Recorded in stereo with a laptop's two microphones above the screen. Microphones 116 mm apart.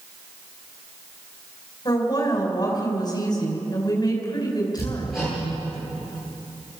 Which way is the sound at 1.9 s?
35° left (ahead or behind).